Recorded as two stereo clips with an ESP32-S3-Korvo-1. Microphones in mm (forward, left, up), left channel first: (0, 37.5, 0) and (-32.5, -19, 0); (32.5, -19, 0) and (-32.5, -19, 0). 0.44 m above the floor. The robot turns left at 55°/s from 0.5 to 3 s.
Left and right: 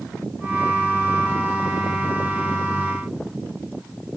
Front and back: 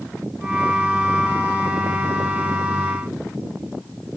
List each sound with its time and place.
Only background noise.